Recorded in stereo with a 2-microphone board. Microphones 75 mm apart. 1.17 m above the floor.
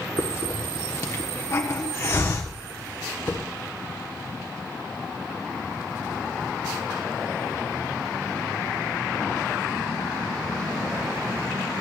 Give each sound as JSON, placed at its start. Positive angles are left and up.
{"t": 0.2, "sound": "a hiss", "side_deg": 40, "distance_m": 1.4}